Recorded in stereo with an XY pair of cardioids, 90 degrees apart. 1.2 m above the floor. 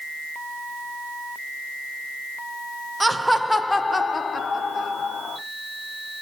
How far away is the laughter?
About 0.8 m.